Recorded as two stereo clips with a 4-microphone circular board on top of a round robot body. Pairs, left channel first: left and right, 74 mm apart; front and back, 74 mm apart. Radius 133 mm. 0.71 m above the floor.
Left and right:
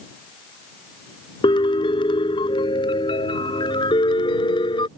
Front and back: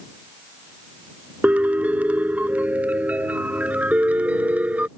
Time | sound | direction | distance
1.4 | a piano | 105° left | ?